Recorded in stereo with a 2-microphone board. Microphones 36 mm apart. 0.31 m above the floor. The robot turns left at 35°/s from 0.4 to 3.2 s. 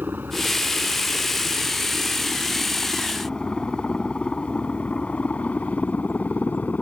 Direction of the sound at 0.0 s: 65° right (ahead or behind).